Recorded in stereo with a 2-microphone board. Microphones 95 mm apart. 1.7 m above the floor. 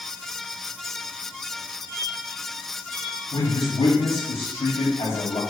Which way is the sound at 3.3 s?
80° left.